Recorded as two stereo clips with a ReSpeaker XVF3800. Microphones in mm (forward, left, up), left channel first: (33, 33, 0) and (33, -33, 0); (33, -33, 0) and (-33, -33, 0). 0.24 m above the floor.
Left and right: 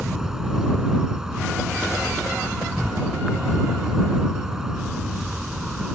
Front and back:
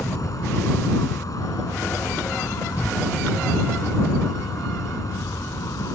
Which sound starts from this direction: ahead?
An insect, at 0.0 s.